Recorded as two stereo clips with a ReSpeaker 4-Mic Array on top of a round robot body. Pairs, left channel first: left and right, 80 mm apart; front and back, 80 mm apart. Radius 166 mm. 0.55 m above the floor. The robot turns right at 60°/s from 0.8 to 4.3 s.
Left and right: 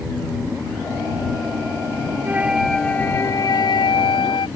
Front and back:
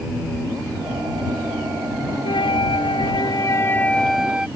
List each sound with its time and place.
2.2 s a flute: 25° right; by 4.5 s 100° left